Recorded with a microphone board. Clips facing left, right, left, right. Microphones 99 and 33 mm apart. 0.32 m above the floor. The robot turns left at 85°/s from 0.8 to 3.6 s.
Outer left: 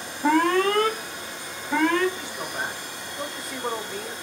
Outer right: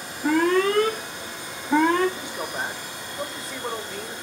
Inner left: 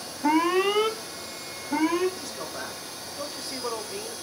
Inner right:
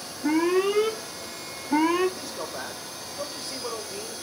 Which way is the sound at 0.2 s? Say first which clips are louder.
Even, even; 70° left.